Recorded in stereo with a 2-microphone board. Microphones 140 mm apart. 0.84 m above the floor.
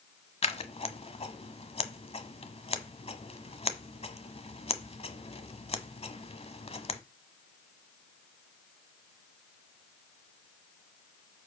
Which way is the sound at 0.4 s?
45° left (ahead or behind).